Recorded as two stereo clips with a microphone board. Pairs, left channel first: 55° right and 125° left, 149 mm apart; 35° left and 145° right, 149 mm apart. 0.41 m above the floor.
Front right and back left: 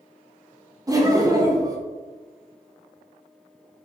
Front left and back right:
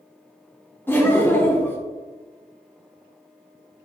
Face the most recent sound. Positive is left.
turn(degrees=95)